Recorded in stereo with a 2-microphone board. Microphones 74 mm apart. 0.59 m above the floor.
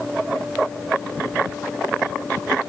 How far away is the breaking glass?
No breaking glass in this recording.